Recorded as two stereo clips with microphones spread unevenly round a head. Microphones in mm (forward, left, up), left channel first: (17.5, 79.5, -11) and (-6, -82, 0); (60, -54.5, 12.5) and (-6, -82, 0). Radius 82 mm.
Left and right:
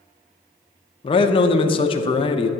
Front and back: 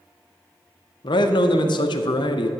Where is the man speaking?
20° left, 0.6 m.